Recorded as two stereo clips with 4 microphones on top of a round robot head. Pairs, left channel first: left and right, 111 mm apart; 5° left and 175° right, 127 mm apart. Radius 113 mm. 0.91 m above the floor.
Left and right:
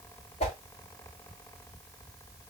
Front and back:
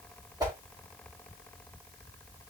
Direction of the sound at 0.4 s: 125° left.